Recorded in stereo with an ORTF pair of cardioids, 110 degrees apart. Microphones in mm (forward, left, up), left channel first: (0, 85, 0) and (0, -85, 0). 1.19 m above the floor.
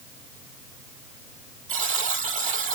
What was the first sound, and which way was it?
A buzzer, 45° right.